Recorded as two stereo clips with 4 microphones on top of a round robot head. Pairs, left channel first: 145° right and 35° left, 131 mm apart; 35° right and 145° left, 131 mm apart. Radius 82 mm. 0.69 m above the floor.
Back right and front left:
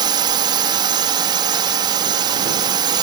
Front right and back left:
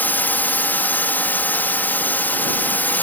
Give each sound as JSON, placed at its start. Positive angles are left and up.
{"t": 0.0, "sound": "a drone", "azimuth_deg": 30}